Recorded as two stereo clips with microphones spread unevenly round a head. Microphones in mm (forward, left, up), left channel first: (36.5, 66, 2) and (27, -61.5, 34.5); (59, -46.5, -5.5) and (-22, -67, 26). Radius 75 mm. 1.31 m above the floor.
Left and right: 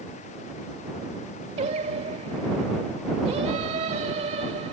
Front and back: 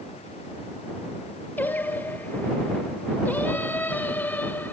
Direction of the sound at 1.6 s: 60° right.